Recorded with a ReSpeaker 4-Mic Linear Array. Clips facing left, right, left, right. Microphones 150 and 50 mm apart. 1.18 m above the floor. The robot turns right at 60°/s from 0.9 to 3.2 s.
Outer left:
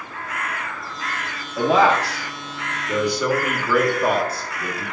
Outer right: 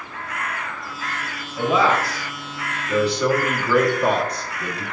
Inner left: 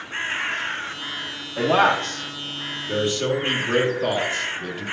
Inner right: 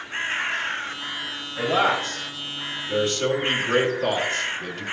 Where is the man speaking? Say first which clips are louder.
Outer left 2 dB, inner left 3 dB; 75° left (ahead or behind), 1.8 m; by 4.8 s 5° left (ahead or behind), 1.8 m.